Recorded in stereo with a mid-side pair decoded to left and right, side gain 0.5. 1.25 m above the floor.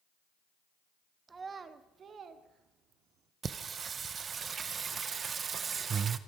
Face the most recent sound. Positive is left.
turn(degrees=-40)